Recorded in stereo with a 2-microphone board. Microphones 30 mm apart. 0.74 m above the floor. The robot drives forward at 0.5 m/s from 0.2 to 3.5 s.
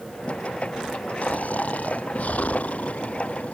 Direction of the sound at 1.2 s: 55° left (ahead or behind).